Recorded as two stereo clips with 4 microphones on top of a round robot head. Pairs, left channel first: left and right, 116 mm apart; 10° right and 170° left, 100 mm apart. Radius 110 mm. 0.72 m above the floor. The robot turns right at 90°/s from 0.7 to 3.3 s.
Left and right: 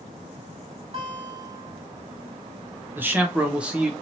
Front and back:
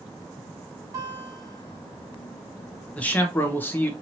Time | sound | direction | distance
0.9 | a guitar | 130° right | 1.4 m
3.0 | a man speaking | 60° right | 1.0 m